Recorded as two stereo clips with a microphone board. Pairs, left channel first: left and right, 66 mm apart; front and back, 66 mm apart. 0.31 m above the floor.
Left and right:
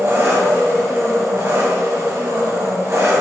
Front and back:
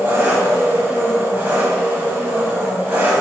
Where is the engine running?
125° right, 1.0 m.